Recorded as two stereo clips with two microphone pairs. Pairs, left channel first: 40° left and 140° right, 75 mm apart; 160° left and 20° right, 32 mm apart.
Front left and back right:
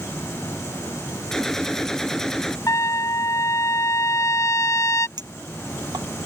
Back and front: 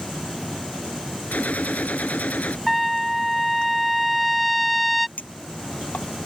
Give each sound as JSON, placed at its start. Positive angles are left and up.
{"t": 1.3, "sound": "a gunshot", "azimuth_deg": 120}
{"t": 2.7, "sound": "a trumpet", "azimuth_deg": 70}
{"t": 5.2, "sound": "a clink", "azimuth_deg": -165}